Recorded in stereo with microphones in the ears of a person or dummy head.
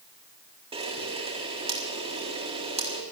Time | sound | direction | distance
0.7 | a camera shutter | 30° right (ahead or behind) | 1.4 m